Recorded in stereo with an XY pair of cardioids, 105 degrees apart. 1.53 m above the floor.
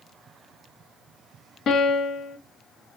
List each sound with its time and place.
1.7 s a piano: 65° left, 0.6 m